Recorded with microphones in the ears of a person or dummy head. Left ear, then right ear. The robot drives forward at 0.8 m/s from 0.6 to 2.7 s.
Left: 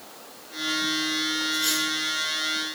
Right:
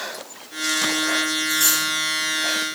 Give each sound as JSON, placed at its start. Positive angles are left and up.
{"t": 1.5, "sound": "cutlery clinking", "side_deg": -70, "distance_m": 7.5}